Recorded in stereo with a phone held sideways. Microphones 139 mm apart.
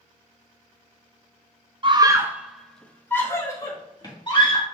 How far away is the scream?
About 0.7 m.